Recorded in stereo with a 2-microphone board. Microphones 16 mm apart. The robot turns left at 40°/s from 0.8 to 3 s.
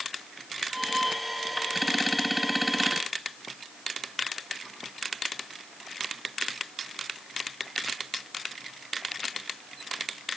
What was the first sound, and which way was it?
Only background noise.